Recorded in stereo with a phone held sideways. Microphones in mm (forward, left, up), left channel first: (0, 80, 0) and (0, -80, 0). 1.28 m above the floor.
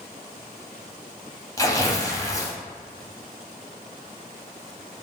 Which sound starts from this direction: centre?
Tearing paper, at 1.6 s.